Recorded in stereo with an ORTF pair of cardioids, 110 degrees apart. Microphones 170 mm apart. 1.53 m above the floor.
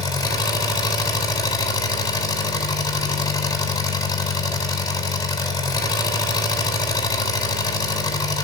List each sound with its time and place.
0.0 s an engine running: 20° left, 8 m